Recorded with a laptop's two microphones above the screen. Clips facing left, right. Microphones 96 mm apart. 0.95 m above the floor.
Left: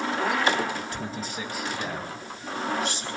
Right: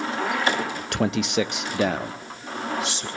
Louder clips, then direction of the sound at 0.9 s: Right 10 dB; 65° right (ahead or behind).